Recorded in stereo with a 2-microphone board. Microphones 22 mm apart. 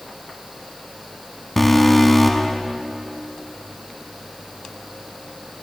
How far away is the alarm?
About 1.7 m.